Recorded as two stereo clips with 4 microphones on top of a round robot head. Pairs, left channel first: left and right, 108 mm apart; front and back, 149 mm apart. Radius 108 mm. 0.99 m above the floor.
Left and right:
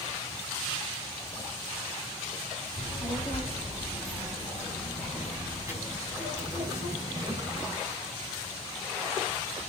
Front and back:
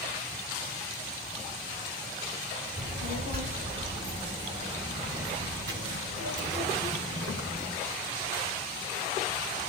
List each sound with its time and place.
2.8 s a child speaking: 160° left, 4 m; by 7.7 s 145° right, 4.5 m